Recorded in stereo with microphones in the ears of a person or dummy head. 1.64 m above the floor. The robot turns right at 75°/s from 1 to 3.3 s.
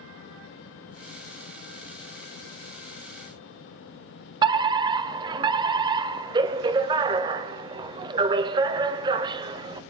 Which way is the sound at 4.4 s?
25° right (ahead or behind).